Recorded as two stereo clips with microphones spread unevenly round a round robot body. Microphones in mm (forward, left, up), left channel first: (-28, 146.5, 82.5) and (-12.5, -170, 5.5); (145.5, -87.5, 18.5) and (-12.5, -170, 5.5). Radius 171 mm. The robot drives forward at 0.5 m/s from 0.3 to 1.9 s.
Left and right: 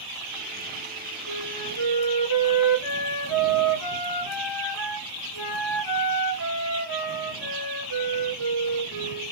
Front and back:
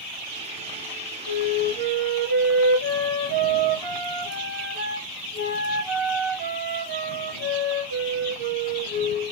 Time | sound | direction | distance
1.3 | a flute | 50° left | 2.5 m